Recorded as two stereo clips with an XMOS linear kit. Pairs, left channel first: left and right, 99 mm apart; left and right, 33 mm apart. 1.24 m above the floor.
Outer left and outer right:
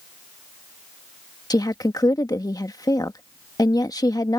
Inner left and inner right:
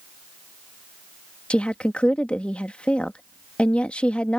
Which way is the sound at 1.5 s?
40° left (ahead or behind).